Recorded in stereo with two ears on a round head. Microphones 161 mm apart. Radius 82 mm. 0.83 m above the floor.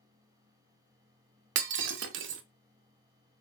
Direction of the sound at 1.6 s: 75° right (ahead or behind).